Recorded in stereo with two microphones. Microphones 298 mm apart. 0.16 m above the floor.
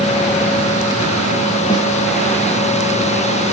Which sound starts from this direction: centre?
A snare drum, at 1.7 s.